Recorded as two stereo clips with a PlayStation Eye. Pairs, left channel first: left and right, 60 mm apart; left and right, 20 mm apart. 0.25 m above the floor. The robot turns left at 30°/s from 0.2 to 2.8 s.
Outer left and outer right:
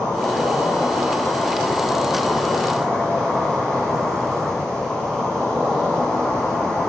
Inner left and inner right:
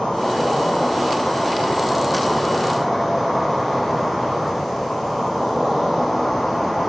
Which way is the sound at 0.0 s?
90° left.